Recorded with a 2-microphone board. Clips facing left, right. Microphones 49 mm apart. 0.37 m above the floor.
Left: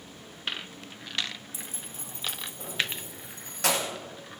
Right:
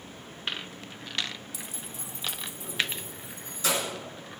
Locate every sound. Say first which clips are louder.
1.5 s keys jangling: right 1 dB; 30° left (ahead or behind), 0.6 m; by 3.9 s 70° left (ahead or behind), 1.8 m